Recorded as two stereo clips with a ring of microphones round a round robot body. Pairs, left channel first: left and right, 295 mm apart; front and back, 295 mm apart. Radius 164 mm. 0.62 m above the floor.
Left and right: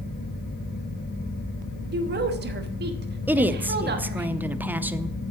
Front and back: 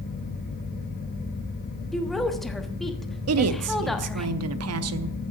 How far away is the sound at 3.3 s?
About 0.8 m.